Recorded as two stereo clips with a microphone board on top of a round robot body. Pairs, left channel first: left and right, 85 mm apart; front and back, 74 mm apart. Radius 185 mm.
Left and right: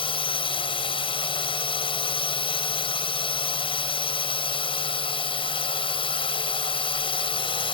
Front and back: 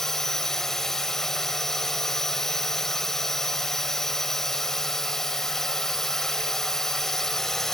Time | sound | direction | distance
0.0 | a drone | 85° left | ?